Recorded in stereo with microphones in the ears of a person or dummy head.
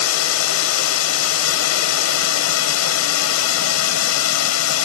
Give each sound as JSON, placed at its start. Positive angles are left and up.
{"t": 0.0, "sound": "a drone", "side_deg": 75}